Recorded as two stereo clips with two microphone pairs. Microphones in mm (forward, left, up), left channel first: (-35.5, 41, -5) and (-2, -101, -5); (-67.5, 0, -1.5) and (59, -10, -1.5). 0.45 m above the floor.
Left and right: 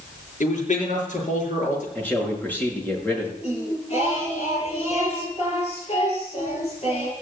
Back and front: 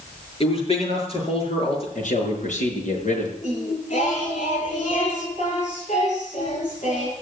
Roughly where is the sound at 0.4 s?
Behind left.